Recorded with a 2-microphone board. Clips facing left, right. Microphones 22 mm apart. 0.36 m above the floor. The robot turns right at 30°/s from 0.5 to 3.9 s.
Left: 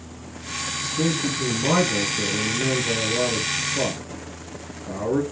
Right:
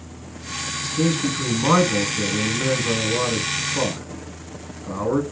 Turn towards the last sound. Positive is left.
turn(degrees=-55)